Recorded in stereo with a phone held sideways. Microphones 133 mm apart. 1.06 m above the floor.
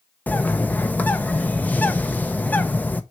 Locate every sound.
0.3 s a bird: 15° left (ahead or behind), 0.6 m